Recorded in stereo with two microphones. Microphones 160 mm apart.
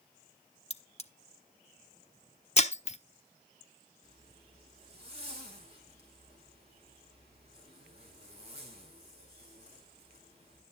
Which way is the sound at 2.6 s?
45° left (ahead or behind).